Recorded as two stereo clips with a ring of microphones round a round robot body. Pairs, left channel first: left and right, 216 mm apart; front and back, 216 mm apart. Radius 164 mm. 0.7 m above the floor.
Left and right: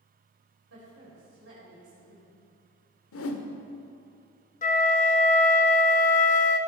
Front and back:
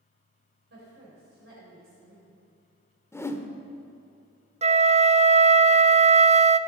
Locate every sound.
0.7 s a woman speaking: 130° right, 4 m
3.1 s a whoosh: 80° left, 1.0 m
4.6 s a flute: 130° left, 0.5 m